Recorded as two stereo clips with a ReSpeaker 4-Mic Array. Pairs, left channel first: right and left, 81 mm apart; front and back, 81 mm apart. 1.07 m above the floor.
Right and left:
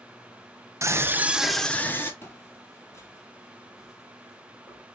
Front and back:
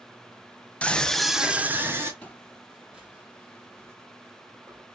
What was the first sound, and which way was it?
A scream, 65° left.